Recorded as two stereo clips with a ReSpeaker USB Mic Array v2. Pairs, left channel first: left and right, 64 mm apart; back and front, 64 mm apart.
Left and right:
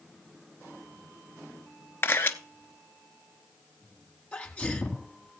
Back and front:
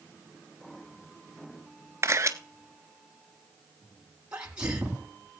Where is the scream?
No scream in this recording.